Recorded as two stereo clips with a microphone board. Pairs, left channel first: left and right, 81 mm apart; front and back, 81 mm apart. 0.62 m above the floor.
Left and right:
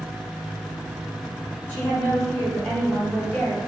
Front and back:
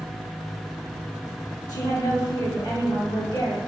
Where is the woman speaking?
25° left, 1.3 m.